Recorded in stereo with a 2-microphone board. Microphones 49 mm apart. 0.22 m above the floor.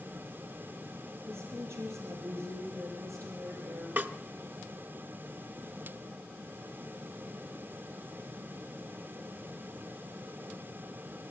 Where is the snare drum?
40° right (ahead or behind), 1.0 m.